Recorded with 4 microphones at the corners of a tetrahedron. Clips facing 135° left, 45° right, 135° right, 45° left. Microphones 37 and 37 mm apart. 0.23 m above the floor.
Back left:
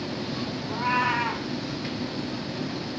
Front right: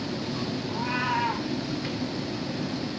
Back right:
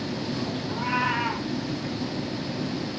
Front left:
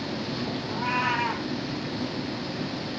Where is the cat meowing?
150° left, 6.5 m.